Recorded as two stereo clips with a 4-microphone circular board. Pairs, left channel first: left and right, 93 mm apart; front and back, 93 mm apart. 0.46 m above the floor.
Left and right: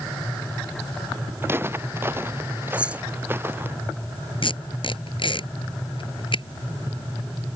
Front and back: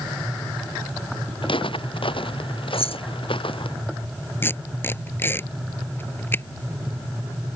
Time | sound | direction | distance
1.4 | footsteps | 25° right | ?
2.7 | keys jangling | 10° right | ?
4.4 | tape being pulled | 65° left | ?